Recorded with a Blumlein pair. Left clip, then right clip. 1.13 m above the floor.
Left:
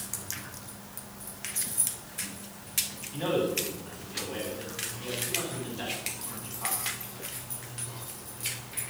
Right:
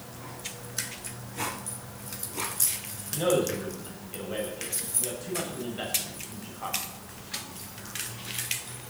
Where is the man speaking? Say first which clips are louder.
Right 3 dB; 65° right, 7.5 m.